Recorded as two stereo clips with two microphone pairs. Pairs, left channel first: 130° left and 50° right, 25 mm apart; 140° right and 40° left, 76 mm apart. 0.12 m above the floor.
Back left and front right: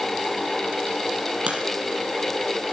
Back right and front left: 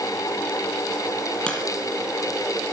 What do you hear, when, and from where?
1.5 s a crack: 65° right, 4.5 m